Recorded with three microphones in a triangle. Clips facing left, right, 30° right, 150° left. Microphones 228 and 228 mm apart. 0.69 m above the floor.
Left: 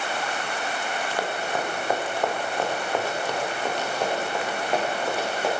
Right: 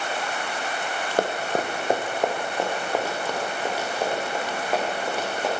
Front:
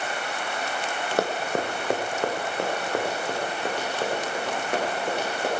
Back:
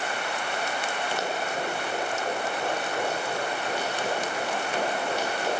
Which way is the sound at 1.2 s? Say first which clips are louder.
Right 6 dB, front 8 dB; 50° right.